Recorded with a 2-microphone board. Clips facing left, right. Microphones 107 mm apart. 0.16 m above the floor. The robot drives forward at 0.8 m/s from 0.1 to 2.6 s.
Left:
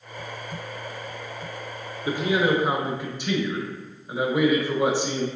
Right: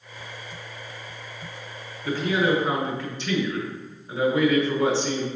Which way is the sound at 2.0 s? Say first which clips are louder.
Even; 15° left (ahead or behind).